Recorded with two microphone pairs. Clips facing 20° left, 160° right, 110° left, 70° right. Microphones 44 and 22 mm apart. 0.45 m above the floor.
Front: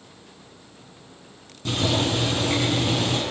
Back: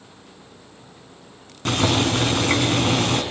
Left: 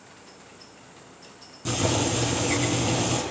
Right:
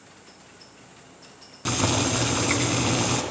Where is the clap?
I don't hear a clap.